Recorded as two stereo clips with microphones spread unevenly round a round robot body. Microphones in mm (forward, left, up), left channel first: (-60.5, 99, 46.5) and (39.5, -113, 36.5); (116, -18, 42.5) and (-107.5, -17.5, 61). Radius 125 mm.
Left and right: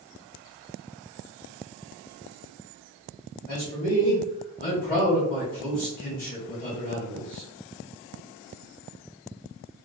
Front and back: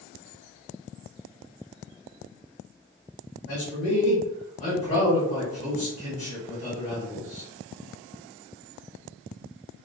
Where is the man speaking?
55° left, 1.4 m.